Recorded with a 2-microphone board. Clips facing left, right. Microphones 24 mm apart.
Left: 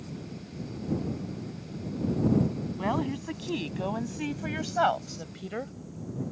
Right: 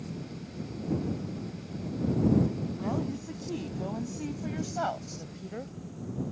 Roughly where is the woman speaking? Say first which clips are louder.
Left 6 dB; left.